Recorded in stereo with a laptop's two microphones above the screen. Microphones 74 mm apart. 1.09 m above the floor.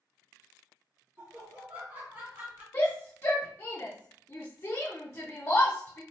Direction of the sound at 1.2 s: 40° right (ahead or behind).